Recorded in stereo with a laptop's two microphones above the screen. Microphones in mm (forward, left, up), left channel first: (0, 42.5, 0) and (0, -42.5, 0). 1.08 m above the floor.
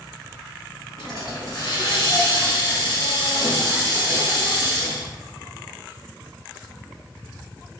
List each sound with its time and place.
1.0 s a hiss: 50° left (ahead or behind), 1.3 m